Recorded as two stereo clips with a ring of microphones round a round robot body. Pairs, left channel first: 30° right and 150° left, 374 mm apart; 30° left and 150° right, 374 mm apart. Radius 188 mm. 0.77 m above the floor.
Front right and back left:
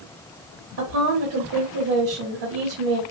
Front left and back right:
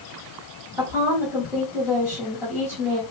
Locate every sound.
0.8 s a woman speaking: 125° left, 1.9 m